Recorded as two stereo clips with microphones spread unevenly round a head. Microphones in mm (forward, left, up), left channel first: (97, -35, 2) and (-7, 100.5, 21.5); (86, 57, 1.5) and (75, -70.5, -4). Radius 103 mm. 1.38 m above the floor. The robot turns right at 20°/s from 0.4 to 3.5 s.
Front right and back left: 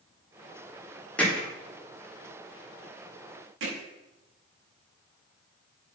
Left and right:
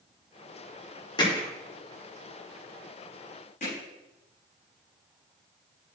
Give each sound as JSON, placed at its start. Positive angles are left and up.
{"t": 1.2, "sound": "hammering", "azimuth_deg": 30, "distance_m": 4.0}
{"t": 3.6, "sound": "hammering", "azimuth_deg": 140, "distance_m": 5.5}